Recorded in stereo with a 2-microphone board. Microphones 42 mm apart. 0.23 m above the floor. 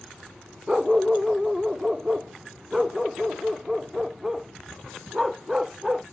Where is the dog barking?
10° right (ahead or behind).